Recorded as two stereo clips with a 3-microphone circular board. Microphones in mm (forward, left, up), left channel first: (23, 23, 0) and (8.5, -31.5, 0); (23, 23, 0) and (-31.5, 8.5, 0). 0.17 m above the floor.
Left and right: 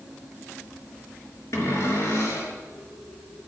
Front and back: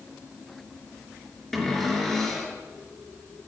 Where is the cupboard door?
95° left, 3.5 m.